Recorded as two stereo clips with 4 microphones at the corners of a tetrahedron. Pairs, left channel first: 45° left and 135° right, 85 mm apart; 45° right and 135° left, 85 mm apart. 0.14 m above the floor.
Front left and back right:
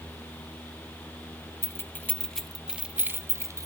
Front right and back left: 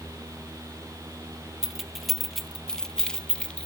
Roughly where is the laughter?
No laughter in this recording.